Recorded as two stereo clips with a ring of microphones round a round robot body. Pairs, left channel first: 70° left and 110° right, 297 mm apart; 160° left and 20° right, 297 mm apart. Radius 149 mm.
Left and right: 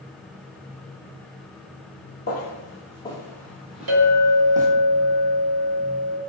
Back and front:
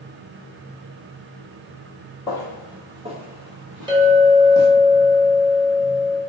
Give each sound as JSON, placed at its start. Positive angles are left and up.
{"t": 2.3, "sound": "footsteps", "azimuth_deg": 90, "distance_m": 0.8}
{"t": 3.9, "sound": "a clink", "azimuth_deg": -100, "distance_m": 1.2}